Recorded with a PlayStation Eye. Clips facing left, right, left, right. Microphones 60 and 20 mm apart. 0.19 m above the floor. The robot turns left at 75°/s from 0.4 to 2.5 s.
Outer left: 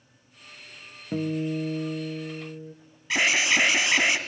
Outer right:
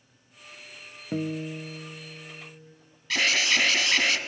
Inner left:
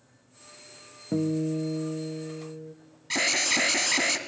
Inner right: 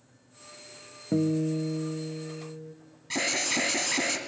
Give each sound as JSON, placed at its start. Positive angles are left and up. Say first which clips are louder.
{"t": 1.1, "sound": "a guitar", "louder": "outer left 3 dB, inner right 1 dB", "azimuth_deg": -175, "distance_m": 0.6}
{"t": 3.1, "sound": "an alarm", "louder": "outer left 2 dB, inner left 3 dB", "side_deg": 20, "distance_m": 1.1}